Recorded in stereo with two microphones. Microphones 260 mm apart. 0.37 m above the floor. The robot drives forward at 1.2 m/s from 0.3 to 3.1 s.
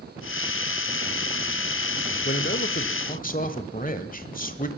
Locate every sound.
2.2 s a man speaking: 40° left (ahead or behind), 1.1 m; by 4.7 s 35° left (ahead or behind), 1.3 m